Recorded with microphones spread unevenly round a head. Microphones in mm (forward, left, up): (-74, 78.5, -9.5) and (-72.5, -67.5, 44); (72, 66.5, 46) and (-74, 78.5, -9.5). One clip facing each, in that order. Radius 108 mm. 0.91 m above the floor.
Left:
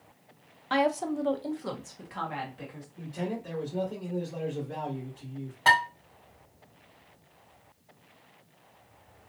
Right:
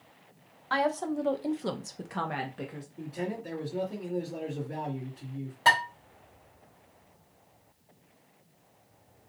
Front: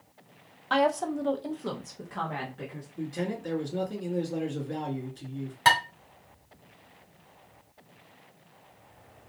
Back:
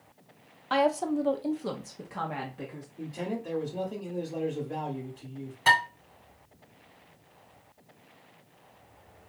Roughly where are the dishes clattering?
Ahead right.